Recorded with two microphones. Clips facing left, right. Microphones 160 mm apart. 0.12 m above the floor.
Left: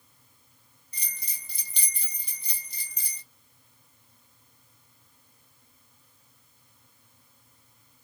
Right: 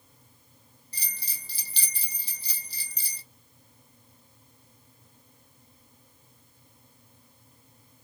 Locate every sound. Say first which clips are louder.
0.9 s a bell: right 1 dB; 35° right (ahead or behind), 0.8 m